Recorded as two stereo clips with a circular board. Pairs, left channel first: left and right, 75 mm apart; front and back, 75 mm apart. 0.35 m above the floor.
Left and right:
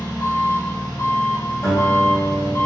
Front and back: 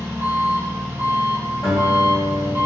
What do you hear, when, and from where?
0.0 s an engine running: 125° left, 0.9 m
1.6 s a guitar: 95° left, 1.7 m